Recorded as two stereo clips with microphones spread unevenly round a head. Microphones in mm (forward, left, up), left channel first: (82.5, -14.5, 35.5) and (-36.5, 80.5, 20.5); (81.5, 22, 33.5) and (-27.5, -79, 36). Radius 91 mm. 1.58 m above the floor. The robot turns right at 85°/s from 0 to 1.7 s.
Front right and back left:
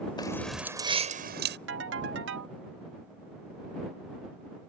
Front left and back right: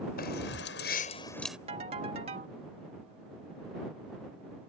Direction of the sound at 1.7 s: 165° left.